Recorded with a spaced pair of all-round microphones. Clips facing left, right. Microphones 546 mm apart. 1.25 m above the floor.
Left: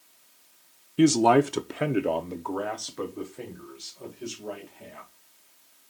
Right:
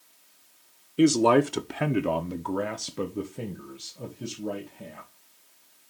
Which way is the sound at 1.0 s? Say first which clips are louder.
Even; 20° left (ahead or behind).